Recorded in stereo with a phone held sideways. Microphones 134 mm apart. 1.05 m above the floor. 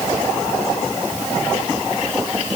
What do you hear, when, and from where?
Only background noise.